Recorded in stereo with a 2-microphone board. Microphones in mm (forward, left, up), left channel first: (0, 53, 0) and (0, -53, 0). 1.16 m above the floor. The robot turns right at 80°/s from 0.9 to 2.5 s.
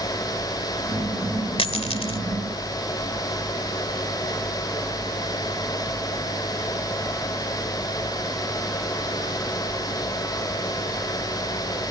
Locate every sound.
1.6 s a dropped coin: 60° left (ahead or behind)